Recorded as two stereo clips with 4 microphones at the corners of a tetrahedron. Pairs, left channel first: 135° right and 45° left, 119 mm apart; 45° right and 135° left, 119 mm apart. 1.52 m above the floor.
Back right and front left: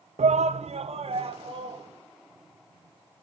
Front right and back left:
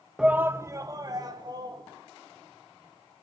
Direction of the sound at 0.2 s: 50° left.